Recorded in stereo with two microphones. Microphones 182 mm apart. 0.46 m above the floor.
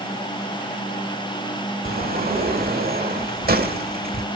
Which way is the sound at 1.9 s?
60° right (ahead or behind).